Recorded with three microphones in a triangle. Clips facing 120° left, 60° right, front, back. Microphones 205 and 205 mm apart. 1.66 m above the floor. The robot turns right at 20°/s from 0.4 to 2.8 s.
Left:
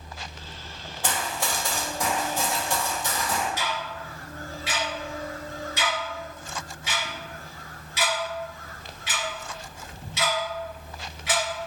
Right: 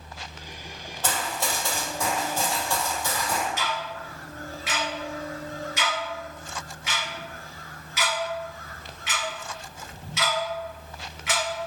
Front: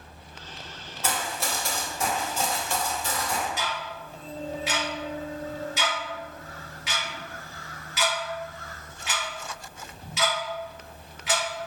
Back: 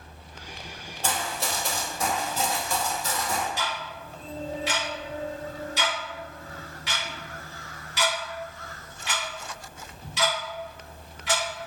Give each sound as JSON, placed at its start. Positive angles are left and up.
{"t": 1.0, "sound": "running footsteps", "azimuth_deg": -170, "distance_m": 1.9}
{"t": 3.6, "sound": "ticking", "azimuth_deg": 85, "distance_m": 1.4}